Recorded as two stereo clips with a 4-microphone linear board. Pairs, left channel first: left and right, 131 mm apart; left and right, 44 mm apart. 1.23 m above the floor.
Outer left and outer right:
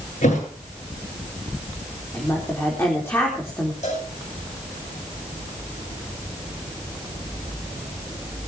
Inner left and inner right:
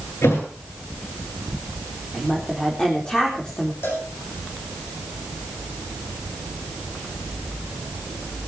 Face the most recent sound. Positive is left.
turn(degrees=65)  # may be behind; listen again after turning